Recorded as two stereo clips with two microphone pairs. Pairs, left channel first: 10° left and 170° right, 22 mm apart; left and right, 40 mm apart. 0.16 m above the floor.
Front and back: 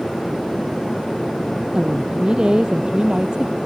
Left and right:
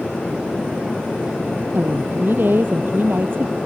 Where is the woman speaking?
120° right; by 3.6 s 125° right.